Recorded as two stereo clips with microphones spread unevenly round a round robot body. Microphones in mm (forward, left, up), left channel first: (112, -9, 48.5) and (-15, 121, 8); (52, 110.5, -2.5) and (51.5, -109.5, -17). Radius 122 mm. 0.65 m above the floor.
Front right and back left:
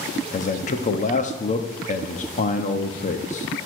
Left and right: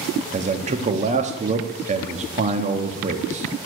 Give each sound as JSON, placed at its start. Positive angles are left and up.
{"t": 0.3, "sound": "a man speaking", "azimuth_deg": -85, "distance_m": 1.0}